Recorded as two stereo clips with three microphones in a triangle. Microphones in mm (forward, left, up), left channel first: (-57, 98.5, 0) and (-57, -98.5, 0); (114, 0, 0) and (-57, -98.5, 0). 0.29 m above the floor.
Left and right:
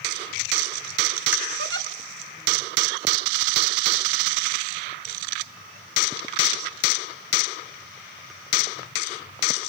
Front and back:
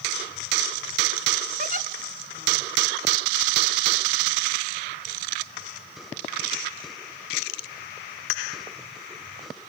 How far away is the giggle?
About 0.9 m.